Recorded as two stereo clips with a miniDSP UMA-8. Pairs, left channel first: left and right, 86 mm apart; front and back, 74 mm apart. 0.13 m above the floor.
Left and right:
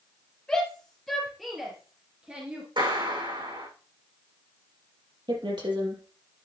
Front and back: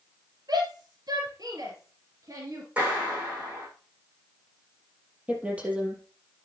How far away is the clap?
About 6 m.